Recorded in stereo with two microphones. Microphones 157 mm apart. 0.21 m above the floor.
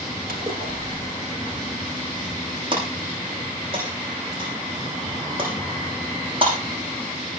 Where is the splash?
75° right (ahead or behind), 3.5 m.